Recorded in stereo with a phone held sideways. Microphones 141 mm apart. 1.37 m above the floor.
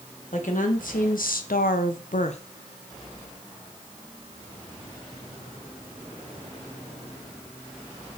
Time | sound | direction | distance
0.3 | a woman speaking | 65° left (ahead or behind) | 1.4 m